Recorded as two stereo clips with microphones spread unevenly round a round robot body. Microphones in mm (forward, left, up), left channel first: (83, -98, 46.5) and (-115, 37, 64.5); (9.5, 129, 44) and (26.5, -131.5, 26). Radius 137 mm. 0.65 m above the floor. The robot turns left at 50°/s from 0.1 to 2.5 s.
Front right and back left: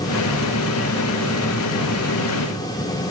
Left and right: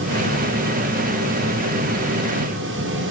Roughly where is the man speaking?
I don't hear a man speaking.